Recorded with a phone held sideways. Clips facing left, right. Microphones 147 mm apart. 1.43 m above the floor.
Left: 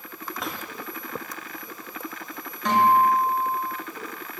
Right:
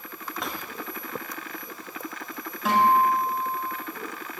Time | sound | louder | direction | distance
0.4 | a drawer | even | centre (ahead or behind) | 3.5 m
2.6 | a guitar | left 1 dB | 5° right (ahead or behind) | 8 m